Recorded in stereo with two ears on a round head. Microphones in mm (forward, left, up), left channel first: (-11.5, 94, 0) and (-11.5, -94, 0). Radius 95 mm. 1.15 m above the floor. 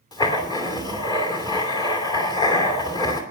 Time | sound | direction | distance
0.1 | writing | 20° left (ahead or behind) | 2.5 m